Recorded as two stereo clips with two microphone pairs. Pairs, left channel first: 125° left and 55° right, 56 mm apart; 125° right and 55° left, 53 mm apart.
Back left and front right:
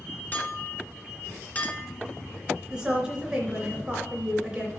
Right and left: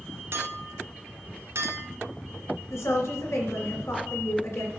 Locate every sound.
0.3 s a clink: 80° left, 1.6 m
2.7 s a woman speaking: 130° right, 2.5 m